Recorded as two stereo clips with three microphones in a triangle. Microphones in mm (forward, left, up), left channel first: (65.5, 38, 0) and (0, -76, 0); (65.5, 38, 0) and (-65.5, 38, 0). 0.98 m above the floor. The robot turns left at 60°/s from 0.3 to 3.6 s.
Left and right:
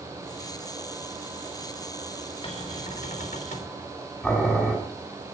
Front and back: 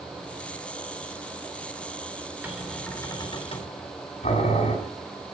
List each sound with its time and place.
2.4 s a cupboard door: 105° left, 3.5 m; by 3.8 s 35° left, 3.5 m
4.2 s boiling: 20° right, 8 m